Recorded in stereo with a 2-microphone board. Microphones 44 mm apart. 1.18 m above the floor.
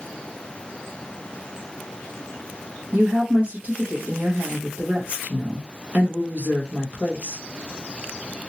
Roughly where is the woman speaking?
Right.